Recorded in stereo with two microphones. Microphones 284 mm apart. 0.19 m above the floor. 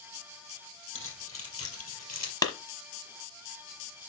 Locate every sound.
0.9 s keys jangling: 45° left (ahead or behind), 3.5 m; by 2.3 s 70° left (ahead or behind), 2.5 m
2.4 s a clap: 15° left (ahead or behind), 1.0 m